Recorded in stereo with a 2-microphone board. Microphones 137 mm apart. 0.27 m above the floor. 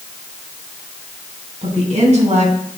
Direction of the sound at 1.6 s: 60° right (ahead or behind).